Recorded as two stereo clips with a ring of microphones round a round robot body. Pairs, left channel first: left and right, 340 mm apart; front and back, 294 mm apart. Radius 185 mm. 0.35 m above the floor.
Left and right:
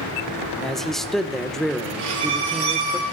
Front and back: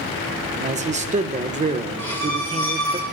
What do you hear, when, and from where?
0.6 s a man speaking: straight behind, 1.1 m
2.0 s a violin: 75° right, 3 m